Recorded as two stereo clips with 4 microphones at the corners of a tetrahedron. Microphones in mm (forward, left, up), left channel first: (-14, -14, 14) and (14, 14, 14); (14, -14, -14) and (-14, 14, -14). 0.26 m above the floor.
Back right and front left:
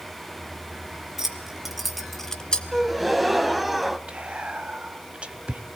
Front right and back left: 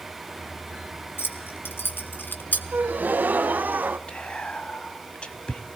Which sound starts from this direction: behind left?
A gasp, at 2.7 s.